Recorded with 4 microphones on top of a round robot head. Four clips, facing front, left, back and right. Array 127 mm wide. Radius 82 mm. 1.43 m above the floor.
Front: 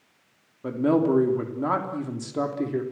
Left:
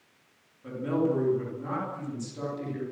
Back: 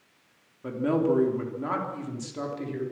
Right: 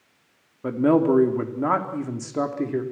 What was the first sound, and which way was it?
A man speaking, 70° right.